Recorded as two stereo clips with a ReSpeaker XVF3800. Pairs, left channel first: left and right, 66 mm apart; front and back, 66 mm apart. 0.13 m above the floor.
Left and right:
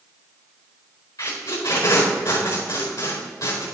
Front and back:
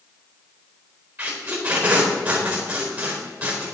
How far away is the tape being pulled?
About 4.5 m.